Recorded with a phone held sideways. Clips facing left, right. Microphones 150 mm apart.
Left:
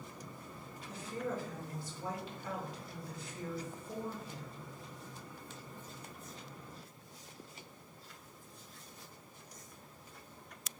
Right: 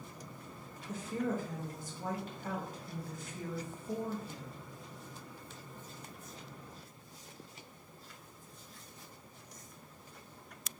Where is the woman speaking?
45° right (ahead or behind), 0.7 m.